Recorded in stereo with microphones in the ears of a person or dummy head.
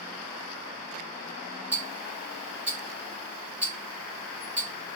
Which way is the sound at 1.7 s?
10° right (ahead or behind).